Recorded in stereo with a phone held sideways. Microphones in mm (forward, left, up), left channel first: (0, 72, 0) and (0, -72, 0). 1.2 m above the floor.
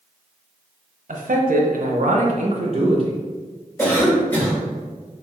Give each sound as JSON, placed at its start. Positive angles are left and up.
{"t": 1.1, "sound": "a man speaking", "side_deg": -65, "distance_m": 0.6}
{"t": 3.8, "sound": "a cough", "side_deg": 15, "distance_m": 1.3}